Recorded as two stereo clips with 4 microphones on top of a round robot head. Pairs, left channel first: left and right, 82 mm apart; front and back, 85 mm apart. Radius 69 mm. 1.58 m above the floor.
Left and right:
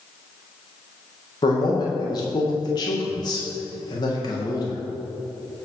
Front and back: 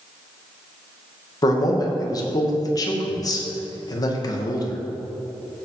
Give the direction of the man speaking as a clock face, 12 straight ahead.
11 o'clock.